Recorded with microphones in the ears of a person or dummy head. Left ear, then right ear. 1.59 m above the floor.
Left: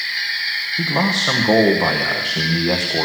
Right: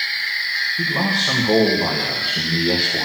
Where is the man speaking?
85° left, 1.3 m.